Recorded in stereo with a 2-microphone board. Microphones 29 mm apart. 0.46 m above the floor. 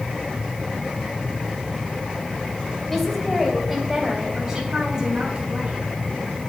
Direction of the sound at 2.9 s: 10° left (ahead or behind).